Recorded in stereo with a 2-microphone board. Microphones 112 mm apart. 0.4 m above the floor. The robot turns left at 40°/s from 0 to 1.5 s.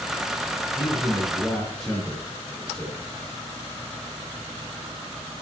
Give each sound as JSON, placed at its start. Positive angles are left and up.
{"t": 0.8, "sound": "a man speaking", "side_deg": 35, "distance_m": 7.0}